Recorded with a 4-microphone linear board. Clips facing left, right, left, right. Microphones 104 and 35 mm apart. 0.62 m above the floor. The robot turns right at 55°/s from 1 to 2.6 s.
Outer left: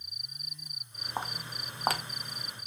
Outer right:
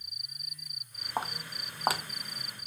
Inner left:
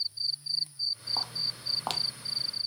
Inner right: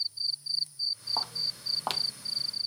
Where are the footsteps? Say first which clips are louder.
Outer right 2 dB, even; 10° right (ahead or behind), 1.0 m; by 2.7 s 30° right (ahead or behind), 0.8 m.